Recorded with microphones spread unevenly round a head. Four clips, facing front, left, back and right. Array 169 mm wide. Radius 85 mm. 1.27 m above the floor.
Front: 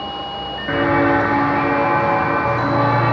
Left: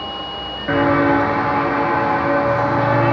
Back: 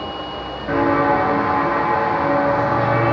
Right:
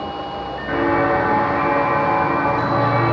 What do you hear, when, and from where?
0.7 s footsteps: 100° left, 1.3 m; by 3.1 s 20° right, 3.5 m